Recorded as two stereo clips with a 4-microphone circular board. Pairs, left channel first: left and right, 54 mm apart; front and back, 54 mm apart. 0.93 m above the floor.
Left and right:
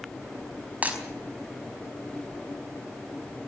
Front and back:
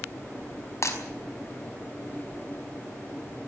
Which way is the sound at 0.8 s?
25° right.